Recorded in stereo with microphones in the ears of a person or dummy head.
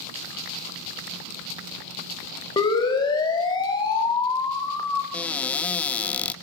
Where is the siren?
25° left (ahead or behind), 6.5 m; by 5.0 s 15° left (ahead or behind), 3.5 m.